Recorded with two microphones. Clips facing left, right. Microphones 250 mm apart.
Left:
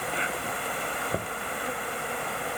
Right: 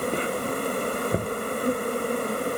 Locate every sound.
0.0 s an insect: 45° right (ahead or behind)
1.1 s knocking: 25° right (ahead or behind)